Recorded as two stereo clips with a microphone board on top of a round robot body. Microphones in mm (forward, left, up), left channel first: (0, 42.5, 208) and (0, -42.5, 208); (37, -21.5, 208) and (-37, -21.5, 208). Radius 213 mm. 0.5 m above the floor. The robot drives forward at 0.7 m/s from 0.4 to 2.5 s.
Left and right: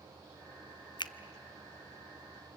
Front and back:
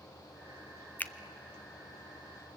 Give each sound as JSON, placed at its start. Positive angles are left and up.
{"t": 1.0, "sound": "a finger snap", "azimuth_deg": 65, "distance_m": 0.9}